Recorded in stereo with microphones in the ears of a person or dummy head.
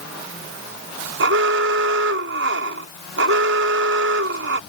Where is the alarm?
65° right (ahead or behind).